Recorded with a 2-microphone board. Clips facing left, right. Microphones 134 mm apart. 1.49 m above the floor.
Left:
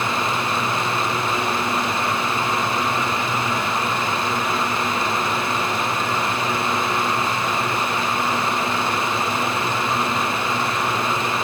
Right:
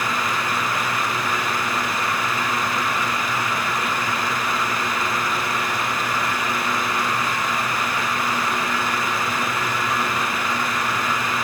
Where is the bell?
I don't hear a bell.